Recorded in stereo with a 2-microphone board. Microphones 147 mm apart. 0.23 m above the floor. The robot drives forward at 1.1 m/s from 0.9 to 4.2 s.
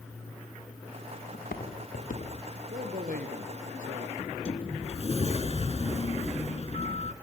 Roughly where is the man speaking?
Right.